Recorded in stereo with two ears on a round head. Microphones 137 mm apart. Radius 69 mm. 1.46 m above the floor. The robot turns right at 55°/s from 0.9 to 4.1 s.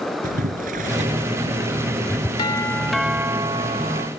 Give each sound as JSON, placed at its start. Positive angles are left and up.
{"t": 0.2, "sound": "boiling", "side_deg": -55}
{"t": 2.4, "sound": "a doorbell", "azimuth_deg": 150}